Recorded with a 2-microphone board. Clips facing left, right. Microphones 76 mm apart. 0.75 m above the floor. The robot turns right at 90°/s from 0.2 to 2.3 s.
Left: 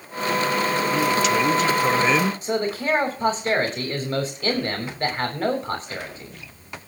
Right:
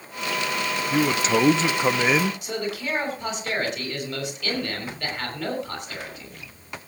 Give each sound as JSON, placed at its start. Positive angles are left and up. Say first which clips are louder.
{"t": 0.9, "sound": "a man speaking", "louder": "right 2 dB", "azimuth_deg": -125, "distance_m": 0.6}
{"t": 2.4, "sound": "a man speaking", "louder": "left 5 dB", "side_deg": 40, "distance_m": 3.0}